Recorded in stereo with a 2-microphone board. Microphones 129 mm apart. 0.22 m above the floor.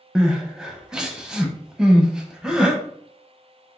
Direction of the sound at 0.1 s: 5° right (ahead or behind).